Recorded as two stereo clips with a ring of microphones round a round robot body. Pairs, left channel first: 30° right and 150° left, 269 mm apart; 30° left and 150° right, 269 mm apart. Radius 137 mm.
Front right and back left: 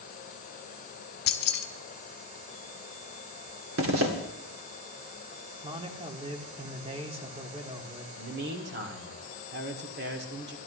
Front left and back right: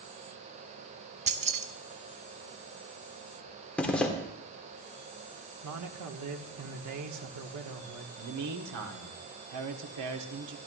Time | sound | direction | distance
1.3 | keys jangling | 85° right | 0.9 m
3.8 | a zipper | 115° left | 2 m
5.6 | a man speaking | 140° right | 1.5 m
8.2 | a man speaking | 160° right | 1.8 m